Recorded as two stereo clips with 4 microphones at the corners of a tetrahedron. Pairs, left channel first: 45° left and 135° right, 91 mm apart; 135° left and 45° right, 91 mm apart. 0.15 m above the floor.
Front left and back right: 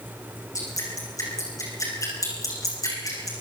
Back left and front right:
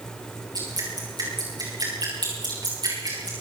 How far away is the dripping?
About 9.5 m.